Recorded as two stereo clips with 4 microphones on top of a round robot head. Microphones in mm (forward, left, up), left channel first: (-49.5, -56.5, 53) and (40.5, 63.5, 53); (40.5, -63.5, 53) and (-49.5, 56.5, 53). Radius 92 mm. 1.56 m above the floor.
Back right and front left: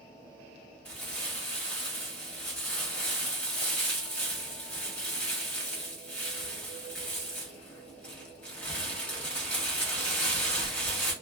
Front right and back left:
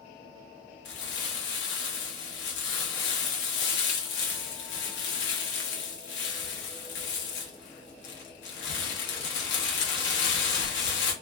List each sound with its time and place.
0.8 s crumpling: 45° right, 0.7 m